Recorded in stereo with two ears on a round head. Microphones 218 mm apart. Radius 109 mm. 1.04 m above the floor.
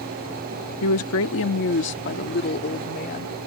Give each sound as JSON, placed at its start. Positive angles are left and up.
{"t": 0.8, "sound": "a woman speaking", "side_deg": 65}